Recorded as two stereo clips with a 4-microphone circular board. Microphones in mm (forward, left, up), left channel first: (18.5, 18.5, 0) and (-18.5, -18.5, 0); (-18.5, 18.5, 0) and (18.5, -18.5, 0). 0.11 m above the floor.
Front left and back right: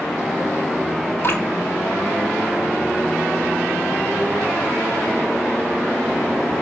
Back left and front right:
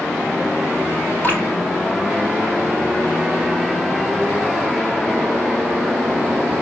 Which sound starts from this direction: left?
Dripping, at 1.2 s.